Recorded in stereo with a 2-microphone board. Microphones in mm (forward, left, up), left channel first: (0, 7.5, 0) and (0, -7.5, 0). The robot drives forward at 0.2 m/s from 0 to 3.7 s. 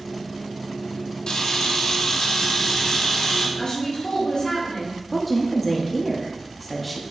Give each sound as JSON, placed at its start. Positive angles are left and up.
{"t": 1.3, "sound": "a camera shutter", "side_deg": 65, "distance_m": 1.0}
{"t": 3.6, "sound": "a woman speaking", "side_deg": 70, "distance_m": 1.4}
{"t": 5.1, "sound": "a woman speaking", "side_deg": 5, "distance_m": 0.6}